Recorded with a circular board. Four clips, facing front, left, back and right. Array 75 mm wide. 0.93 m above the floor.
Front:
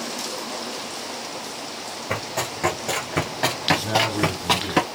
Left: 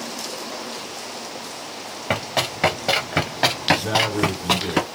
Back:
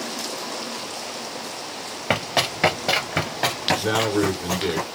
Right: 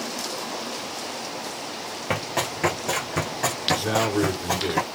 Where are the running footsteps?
165° left, 1.3 m; by 4.8 s 45° left, 1.4 m.